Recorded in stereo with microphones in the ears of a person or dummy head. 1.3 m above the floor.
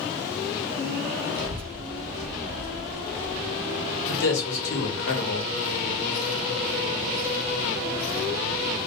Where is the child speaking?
50° right (ahead or behind), 1.0 m; by 3.7 s 55° left (ahead or behind), 1.0 m.